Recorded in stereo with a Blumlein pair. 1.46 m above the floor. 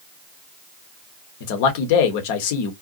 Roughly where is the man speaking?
Ahead left.